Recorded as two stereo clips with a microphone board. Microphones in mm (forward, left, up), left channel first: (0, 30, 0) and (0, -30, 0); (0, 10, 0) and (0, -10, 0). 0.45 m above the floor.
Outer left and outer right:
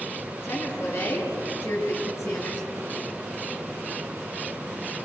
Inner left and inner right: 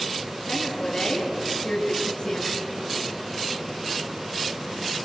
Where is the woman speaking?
40° left (ahead or behind), 6 m; by 2.7 s 50° left (ahead or behind), 5.5 m.